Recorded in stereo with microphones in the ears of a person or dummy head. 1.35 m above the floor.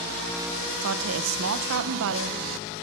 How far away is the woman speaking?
About 1.1 m.